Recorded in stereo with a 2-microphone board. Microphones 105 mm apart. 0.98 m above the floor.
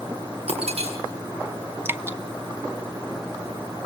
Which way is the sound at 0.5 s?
75° right (ahead or behind).